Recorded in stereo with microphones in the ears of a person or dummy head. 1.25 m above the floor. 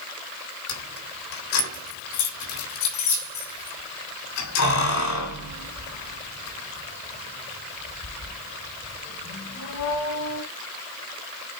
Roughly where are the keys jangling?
Left.